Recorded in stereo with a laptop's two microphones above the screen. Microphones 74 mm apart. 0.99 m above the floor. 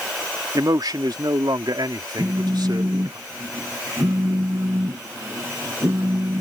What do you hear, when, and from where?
0.6 s a man speaking: 65° right (ahead or behind); by 3.2 s 75° right (ahead or behind)
2.2 s a phone buzzing: 65° right (ahead or behind)